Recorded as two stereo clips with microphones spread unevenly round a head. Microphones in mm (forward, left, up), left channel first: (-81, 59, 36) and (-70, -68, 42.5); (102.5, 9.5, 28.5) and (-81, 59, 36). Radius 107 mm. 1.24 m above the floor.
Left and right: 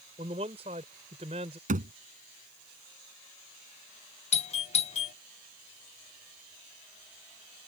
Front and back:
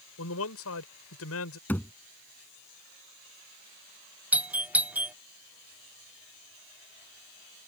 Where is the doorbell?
85° left.